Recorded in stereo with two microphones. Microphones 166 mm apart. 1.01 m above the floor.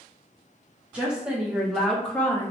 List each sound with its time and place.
0.9 s a woman speaking: 10° right (ahead or behind), 1.1 m; by 2.5 s 15° left (ahead or behind), 0.5 m